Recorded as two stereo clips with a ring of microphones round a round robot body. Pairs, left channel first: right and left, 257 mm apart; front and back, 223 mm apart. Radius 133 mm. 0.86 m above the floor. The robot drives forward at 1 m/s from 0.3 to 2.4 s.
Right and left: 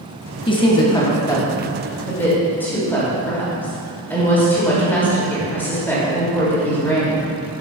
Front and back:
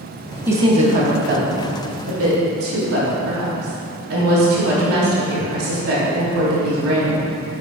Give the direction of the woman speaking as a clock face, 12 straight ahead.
4 o'clock.